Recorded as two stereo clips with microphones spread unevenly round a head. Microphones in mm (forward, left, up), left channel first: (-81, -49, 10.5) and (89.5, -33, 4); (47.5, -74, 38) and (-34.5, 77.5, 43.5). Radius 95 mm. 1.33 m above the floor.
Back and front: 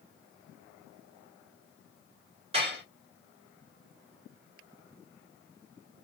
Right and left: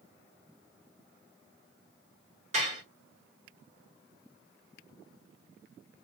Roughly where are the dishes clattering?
Left.